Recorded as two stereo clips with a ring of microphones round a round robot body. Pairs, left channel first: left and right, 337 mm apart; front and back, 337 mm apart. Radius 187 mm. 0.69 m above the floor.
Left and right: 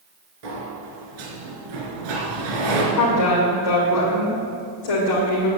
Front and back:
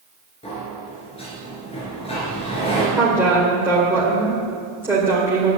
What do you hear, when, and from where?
0.4 s a sliding door: 75° right, 2.5 m
2.9 s a woman speaking: 95° left, 2 m